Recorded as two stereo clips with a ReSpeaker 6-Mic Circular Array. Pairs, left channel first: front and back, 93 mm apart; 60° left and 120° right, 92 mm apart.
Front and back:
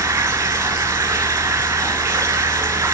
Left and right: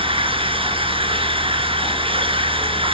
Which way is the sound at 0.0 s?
120° right.